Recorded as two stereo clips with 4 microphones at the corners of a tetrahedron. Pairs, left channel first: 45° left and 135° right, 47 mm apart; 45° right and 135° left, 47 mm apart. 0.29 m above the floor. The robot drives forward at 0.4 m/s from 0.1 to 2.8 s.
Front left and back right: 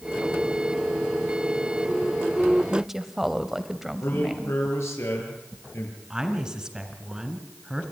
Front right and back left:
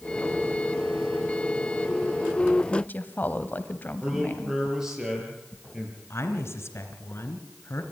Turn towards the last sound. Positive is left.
turn(degrees=-60)